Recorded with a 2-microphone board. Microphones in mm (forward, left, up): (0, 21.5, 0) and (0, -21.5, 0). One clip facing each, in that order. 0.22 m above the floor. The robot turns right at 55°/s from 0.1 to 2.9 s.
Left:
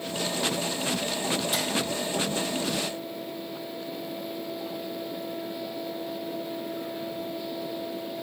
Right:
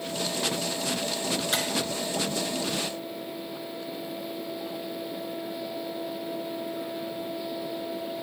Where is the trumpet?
I don't hear a trumpet.